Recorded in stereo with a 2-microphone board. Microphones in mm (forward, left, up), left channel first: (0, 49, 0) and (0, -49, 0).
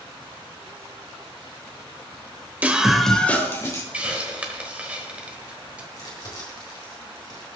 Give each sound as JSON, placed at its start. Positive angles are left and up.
{"t": 2.6, "sound": "a scream", "side_deg": -15, "distance_m": 0.9}
{"t": 3.9, "sound": "a hiss", "side_deg": -15, "distance_m": 1.3}
{"t": 5.9, "sound": "crumpling", "side_deg": 40, "distance_m": 3.5}